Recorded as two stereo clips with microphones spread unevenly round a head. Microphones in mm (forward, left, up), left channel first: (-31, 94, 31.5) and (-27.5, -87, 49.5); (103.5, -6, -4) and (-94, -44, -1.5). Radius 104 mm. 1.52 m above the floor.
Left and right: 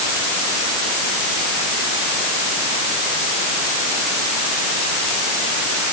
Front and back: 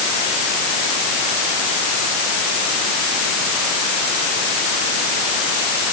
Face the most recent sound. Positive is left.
No sound to turn to.